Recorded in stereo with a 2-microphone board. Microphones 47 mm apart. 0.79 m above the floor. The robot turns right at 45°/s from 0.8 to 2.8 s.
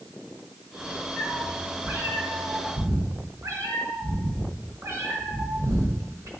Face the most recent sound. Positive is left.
turn(degrees=-95)